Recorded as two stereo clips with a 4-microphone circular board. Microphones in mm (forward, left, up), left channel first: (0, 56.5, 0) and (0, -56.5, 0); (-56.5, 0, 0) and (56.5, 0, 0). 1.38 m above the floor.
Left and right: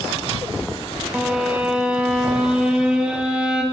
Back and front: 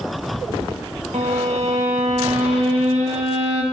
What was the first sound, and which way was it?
A violin, 10° right.